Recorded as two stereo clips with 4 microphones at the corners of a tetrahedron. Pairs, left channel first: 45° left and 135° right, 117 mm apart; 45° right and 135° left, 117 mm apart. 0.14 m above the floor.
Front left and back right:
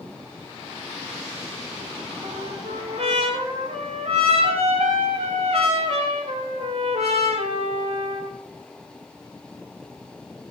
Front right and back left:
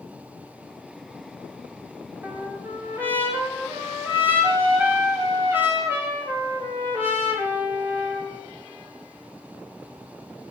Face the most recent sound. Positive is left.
turn(degrees=-155)